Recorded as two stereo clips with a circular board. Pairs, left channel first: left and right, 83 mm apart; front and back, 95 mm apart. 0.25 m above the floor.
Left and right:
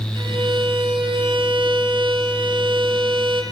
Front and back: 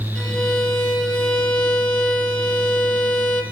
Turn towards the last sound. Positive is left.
turn(degrees=-75)